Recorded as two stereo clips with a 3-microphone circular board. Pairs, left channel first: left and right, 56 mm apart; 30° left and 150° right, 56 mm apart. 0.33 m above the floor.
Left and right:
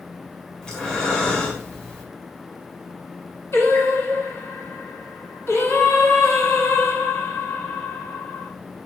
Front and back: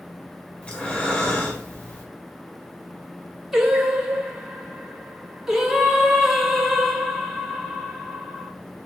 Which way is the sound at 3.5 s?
125° left.